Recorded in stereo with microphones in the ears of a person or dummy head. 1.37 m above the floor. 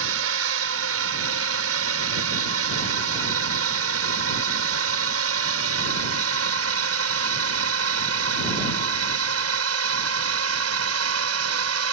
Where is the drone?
75° right (ahead or behind).